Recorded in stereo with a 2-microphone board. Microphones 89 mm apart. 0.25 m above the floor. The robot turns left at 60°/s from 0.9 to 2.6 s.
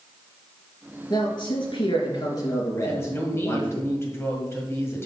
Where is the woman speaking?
30° left (ahead or behind), 1.7 m.